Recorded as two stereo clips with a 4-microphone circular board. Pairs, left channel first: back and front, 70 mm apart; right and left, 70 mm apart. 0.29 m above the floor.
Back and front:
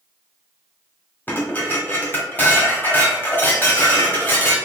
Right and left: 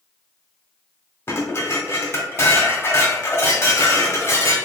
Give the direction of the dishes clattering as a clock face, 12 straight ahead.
4 o'clock.